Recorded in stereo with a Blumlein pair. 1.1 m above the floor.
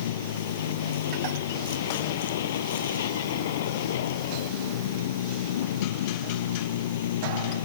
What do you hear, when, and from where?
0.0 s a vehicle: 60° left